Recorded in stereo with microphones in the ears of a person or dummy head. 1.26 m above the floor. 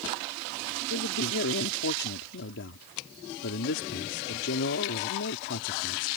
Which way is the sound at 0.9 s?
65° left (ahead or behind).